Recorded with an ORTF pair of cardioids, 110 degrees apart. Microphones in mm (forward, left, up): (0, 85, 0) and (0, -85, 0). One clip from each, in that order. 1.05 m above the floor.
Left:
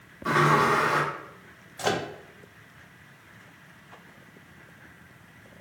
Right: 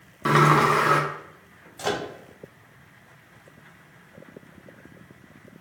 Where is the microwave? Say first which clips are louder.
Even; 5° left, 0.6 m.